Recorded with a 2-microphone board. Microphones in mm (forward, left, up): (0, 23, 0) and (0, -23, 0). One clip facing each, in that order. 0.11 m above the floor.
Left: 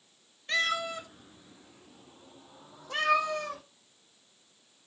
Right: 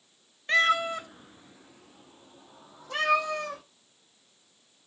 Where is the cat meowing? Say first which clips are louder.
Right 6 dB; 30° right (ahead or behind), 0.9 m; by 3.6 s 5° left (ahead or behind), 3 m.